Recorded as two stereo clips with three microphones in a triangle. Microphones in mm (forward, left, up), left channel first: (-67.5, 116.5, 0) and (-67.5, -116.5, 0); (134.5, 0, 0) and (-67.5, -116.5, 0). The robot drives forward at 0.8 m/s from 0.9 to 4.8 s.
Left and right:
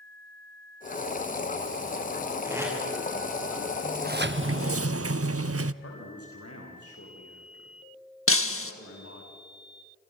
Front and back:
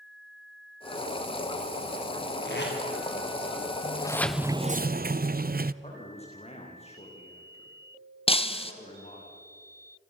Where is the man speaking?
95° left, 7.5 m.